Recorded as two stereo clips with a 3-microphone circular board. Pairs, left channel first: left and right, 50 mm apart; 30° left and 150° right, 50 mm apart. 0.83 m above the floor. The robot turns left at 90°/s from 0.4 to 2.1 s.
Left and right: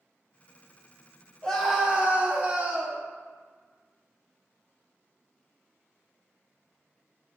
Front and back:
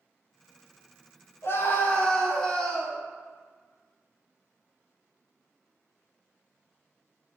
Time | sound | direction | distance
1.4 | a scream | 20° left | 1.0 m